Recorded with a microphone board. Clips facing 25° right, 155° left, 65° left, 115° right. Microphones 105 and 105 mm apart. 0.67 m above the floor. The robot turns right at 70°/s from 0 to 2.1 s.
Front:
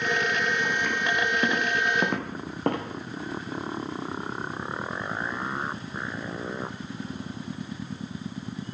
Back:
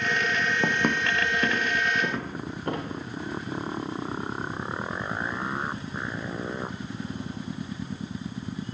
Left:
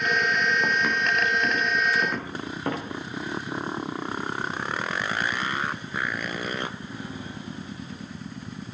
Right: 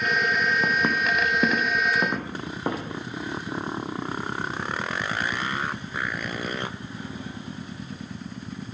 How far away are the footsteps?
About 1.8 m.